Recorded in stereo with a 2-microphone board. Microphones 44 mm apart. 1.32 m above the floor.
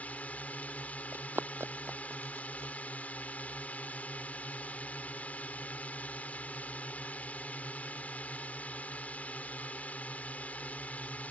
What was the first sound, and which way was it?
A drone, 35° left (ahead or behind).